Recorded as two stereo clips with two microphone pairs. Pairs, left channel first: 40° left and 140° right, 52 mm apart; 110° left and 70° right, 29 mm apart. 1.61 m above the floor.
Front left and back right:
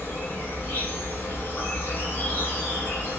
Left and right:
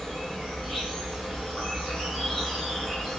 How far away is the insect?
About 1.9 m.